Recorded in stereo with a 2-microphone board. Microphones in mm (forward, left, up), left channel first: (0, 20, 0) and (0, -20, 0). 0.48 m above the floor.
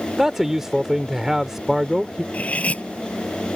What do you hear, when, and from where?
0.2 s a man speaking: 15° right (ahead or behind)
2.3 s cutlery clinking: 35° left (ahead or behind)